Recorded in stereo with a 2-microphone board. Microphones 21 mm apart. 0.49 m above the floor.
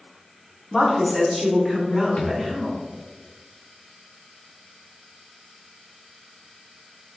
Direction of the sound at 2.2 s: 70° left (ahead or behind).